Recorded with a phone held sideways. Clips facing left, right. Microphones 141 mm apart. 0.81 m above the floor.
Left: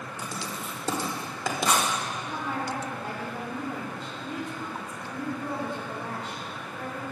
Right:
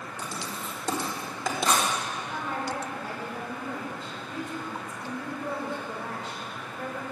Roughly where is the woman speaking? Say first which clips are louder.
Left 1 dB; left.